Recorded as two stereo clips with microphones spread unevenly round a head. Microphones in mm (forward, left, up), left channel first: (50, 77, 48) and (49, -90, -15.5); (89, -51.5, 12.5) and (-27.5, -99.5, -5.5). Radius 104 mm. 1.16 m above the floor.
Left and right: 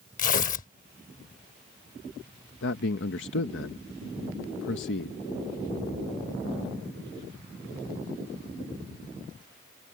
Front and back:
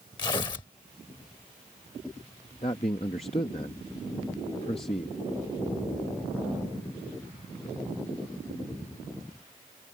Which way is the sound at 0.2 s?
80° left.